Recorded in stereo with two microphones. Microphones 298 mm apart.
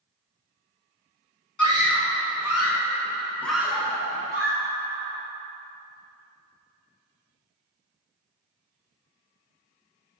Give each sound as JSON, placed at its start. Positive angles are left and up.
{"t": 1.6, "sound": "a scream", "side_deg": 75, "distance_m": 1.0}